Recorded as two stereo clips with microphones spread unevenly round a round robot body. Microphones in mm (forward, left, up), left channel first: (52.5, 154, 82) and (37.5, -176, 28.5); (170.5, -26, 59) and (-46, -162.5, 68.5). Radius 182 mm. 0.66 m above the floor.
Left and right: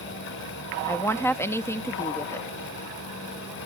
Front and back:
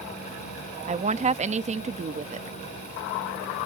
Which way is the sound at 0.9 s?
Straight behind.